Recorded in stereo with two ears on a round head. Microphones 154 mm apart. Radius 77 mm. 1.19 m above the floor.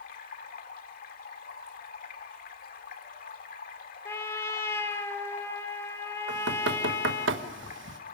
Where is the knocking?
80° right, 1.3 m.